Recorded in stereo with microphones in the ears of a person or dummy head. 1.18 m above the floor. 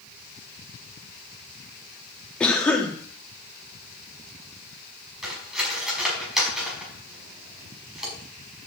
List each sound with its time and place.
2.4 s a cough: 10° left (ahead or behind), 1.8 m
5.2 s cutlery clinking: 5° right (ahead or behind), 5.5 m